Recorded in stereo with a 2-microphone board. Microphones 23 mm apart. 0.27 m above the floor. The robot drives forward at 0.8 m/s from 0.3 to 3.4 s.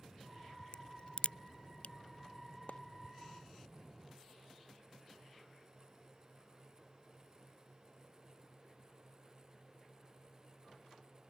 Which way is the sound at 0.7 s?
45° left (ahead or behind).